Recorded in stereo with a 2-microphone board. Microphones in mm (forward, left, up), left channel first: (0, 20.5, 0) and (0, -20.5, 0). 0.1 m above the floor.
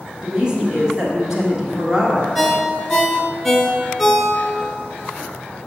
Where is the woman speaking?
20° right (ahead or behind), 1.2 m.